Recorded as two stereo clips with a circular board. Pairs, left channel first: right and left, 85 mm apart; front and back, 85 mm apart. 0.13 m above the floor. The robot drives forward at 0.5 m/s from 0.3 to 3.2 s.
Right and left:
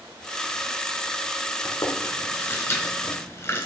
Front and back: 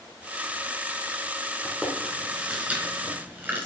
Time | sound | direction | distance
1.6 | chewing | 95° right | 2.0 m